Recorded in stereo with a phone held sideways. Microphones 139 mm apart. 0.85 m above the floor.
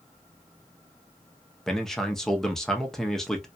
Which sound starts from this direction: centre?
A man speaking, at 1.7 s.